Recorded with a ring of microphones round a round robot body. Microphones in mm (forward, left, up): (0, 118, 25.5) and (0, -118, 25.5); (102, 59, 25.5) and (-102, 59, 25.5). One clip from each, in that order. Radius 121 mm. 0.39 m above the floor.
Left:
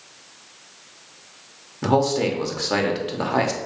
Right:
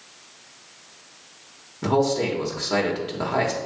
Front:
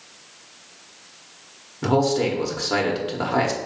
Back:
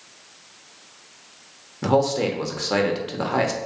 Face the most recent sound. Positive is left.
turn(degrees=125)